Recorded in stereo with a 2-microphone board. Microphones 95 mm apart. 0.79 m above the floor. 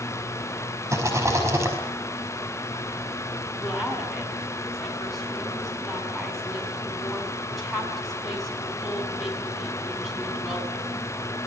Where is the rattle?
30° right (ahead or behind), 5 m.